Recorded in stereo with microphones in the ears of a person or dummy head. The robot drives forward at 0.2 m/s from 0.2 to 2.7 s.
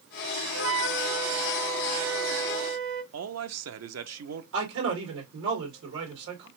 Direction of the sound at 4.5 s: 85° right.